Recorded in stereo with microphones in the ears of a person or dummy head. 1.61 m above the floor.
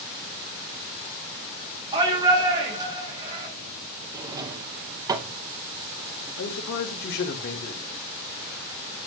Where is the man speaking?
60° left (ahead or behind), 3 m.